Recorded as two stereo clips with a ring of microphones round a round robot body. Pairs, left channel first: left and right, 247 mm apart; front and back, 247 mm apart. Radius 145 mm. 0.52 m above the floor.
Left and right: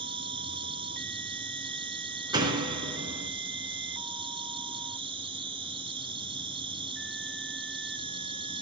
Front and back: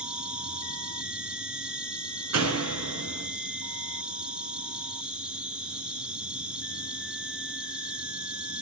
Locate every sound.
0.0 s an insect: 100° right, 1.9 m
2.3 s a door slam: 165° right, 6 m